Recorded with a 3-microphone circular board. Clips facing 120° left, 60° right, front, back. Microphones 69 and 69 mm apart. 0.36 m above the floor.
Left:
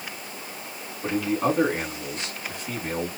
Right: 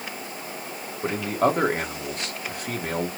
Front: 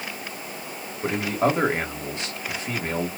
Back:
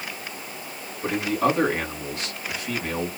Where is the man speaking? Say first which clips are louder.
Right 1 dB, even; 65° right, 1.8 m.